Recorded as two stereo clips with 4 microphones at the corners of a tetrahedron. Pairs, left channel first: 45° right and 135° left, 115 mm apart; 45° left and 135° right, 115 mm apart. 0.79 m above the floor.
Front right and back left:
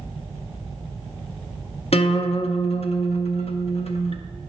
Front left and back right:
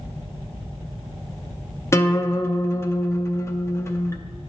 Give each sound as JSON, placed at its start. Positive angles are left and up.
{"t": 1.9, "sound": "a guitar", "azimuth_deg": -20, "distance_m": 0.6}